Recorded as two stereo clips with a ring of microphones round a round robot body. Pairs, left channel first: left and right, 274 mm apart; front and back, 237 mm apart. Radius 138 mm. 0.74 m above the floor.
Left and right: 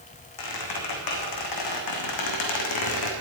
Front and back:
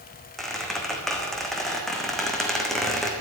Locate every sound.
0.4 s a squeak: 90° left, 2.5 m